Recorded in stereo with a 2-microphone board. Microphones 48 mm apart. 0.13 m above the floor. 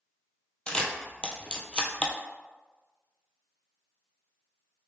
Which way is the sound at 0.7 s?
20° left (ahead or behind).